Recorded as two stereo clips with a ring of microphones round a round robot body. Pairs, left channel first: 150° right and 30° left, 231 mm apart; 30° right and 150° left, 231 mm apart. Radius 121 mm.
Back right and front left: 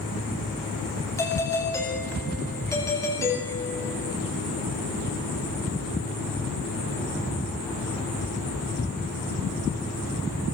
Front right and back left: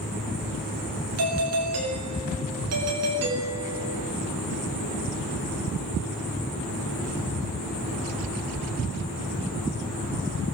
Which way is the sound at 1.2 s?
130° left.